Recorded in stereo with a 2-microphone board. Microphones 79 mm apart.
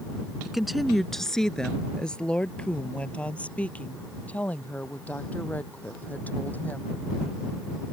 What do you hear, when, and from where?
0.5 s a woman speaking: 5° right (ahead or behind); by 7.0 s 20° left (ahead or behind)